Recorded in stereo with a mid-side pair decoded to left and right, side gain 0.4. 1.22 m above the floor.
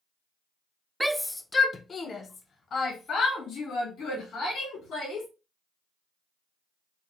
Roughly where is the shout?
Ahead.